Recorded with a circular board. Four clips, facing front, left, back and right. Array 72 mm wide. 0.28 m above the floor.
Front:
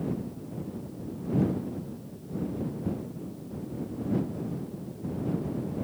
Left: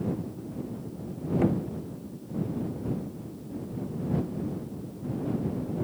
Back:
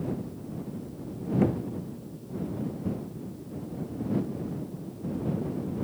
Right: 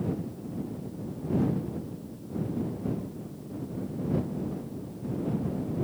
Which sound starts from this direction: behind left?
Knocking, at 1.4 s.